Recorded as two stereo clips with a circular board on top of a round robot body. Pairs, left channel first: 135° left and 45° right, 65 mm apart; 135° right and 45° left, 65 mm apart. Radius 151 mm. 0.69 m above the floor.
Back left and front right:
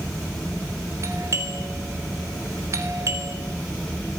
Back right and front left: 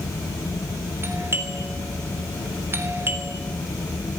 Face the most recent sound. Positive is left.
turn(degrees=-5)